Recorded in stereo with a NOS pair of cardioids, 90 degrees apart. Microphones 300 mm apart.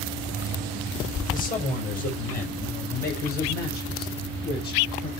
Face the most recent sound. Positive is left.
turn(degrees=35)